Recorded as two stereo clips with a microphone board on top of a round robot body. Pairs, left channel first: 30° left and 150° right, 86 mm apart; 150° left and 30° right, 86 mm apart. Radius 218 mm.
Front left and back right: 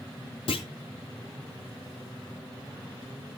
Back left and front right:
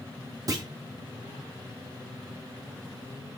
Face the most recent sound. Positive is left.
turn(degrees=20)